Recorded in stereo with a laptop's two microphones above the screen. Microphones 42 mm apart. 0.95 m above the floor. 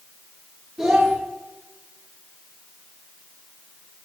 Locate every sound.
0.8 s a child speaking: 25° right (ahead or behind), 1.7 m